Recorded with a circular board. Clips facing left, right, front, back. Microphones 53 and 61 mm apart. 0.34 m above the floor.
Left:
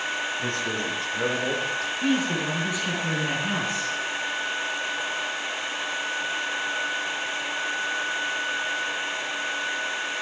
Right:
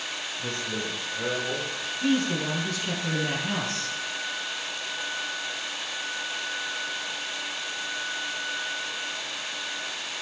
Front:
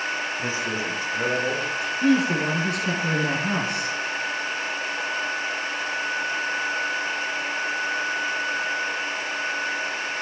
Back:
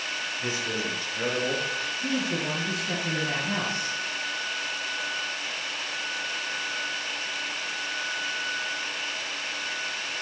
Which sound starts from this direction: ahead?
A man speaking, at 2.0 s.